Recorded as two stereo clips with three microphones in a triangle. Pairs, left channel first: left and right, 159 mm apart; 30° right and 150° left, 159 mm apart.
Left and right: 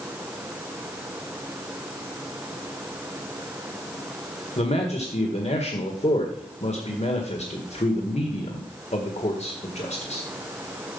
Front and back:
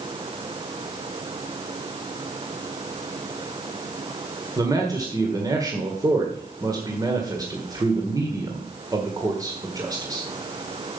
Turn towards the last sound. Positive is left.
turn(degrees=95)